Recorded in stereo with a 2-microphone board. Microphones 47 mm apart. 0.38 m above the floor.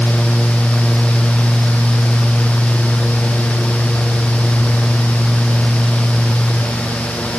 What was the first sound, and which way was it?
Only background noise.